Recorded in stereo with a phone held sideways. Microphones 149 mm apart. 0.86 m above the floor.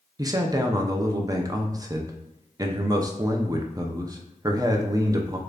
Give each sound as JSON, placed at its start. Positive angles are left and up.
{"t": 0.2, "sound": "a man speaking", "side_deg": -25, "distance_m": 0.5}